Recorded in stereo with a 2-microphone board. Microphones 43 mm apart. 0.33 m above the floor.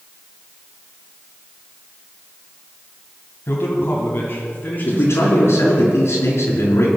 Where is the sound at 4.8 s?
65° left (ahead or behind), 4 m.